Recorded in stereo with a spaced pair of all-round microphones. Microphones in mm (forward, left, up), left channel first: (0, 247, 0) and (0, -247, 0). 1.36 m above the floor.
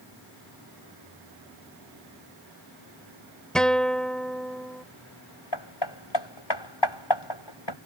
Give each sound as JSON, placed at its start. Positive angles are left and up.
{"t": 3.5, "sound": "a guitar", "side_deg": 0}
{"t": 5.5, "sound": "hammering", "side_deg": 55}